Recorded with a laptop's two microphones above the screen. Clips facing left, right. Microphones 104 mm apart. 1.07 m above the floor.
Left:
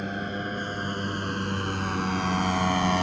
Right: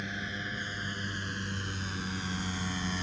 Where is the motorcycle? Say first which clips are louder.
Left 8 dB; 50° left (ahead or behind); by 3.0 s 85° left.